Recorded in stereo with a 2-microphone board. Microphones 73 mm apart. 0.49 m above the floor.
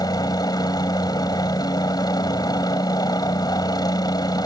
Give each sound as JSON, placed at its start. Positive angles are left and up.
{"t": 0.0, "sound": "a helicopter", "side_deg": 60}